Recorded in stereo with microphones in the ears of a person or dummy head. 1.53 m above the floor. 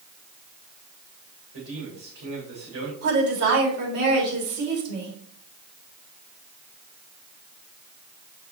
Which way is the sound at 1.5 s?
55° right (ahead or behind).